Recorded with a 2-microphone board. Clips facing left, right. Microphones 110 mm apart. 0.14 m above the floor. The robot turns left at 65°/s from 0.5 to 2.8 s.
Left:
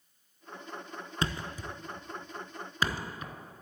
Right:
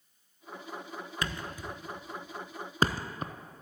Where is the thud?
30° left (ahead or behind), 0.6 m; by 3.3 s 40° right (ahead or behind), 0.6 m.